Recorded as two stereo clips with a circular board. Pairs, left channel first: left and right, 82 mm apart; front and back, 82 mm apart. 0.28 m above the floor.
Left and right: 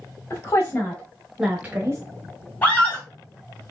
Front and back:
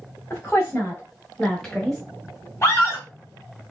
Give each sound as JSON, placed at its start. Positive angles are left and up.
{"t": 0.3, "sound": "a woman speaking", "azimuth_deg": 55, "distance_m": 1.5}
{"t": 2.6, "sound": "a scream", "azimuth_deg": 35, "distance_m": 1.8}